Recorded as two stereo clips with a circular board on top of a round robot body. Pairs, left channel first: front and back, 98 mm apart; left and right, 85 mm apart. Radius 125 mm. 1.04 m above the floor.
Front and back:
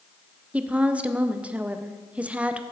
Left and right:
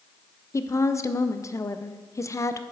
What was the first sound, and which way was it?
A woman speaking, 110° left.